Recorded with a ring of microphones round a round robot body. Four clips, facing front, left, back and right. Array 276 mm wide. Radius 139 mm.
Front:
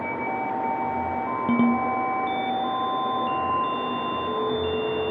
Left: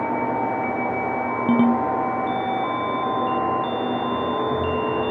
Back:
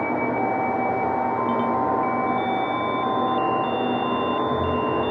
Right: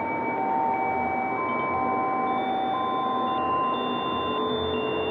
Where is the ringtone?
70° left.